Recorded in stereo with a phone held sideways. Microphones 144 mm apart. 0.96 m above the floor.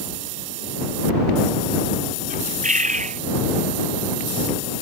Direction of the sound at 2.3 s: 65° right (ahead or behind).